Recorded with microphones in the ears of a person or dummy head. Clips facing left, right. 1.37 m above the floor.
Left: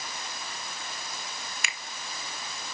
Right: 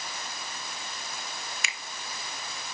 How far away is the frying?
No frying in this recording.